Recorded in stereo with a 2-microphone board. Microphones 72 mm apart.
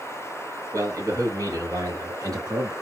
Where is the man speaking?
50° right (ahead or behind), 3 m; by 2.7 s 60° right (ahead or behind), 3.5 m.